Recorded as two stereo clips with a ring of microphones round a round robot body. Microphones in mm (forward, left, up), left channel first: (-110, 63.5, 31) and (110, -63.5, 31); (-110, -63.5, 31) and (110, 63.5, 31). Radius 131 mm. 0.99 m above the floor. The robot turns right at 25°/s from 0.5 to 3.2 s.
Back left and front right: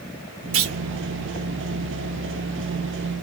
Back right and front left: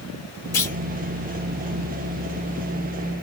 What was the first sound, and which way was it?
A clunk, 70° right.